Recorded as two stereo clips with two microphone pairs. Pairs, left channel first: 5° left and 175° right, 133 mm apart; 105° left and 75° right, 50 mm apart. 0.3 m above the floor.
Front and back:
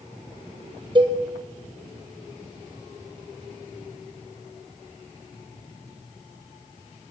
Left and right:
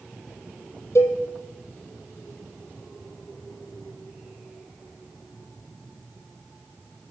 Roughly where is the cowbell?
Behind left.